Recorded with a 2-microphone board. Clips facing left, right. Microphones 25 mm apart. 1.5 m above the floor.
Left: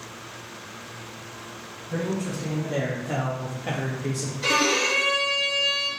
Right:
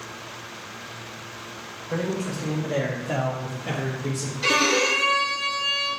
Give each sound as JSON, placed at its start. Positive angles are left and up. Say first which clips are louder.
{"t": 1.9, "sound": "a man speaking", "louder": "right 1 dB", "side_deg": -50, "distance_m": 1.2}
{"t": 4.4, "sound": "a violin", "louder": "right 1 dB", "side_deg": -15, "distance_m": 0.9}